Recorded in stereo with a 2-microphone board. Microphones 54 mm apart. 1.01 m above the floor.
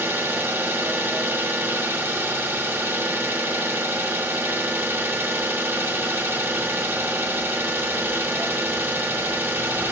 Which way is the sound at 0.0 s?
45° right (ahead or behind).